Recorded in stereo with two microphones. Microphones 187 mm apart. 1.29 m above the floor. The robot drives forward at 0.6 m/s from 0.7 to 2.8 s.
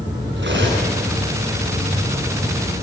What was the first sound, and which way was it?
Cutlery clinking, 75° right (ahead or behind).